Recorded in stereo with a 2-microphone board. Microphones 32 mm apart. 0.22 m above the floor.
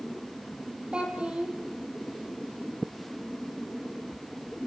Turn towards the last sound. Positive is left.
turn(degrees=-35)  # may be behind; listen again after turning